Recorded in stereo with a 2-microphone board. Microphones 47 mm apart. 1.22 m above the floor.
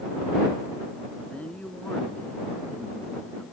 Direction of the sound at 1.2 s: 25° left (ahead or behind).